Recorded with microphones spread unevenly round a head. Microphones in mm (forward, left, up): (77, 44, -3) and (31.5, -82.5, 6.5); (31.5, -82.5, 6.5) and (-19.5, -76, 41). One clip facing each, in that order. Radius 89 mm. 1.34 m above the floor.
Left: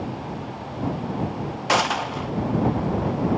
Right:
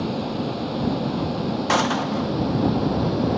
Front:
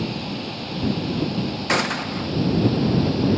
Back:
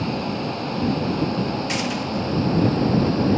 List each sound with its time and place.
0.0 s a vehicle: 140° right; by 3.4 s 135° right
1.7 s a gunshot: 15° right